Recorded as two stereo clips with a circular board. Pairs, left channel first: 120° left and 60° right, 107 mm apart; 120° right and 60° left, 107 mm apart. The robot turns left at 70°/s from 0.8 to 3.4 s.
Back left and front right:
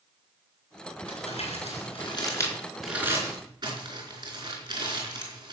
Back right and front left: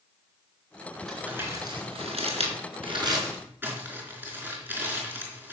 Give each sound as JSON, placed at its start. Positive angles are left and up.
{"t": 1.1, "sound": "crumpling", "azimuth_deg": 150, "distance_m": 4.0}